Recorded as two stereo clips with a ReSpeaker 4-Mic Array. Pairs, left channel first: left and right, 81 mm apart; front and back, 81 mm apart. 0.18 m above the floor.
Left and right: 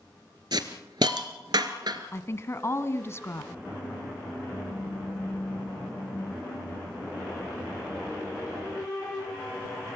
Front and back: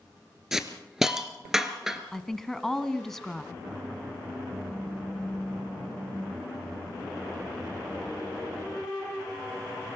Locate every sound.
0.5 s a hiss: 95° right, 1.5 m
2.1 s a woman speaking: 80° left, 1.3 m